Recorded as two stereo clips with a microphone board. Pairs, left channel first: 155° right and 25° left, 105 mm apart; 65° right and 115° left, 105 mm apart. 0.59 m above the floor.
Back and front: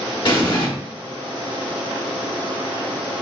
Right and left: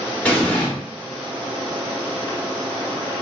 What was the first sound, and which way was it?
An explosion, 140° right.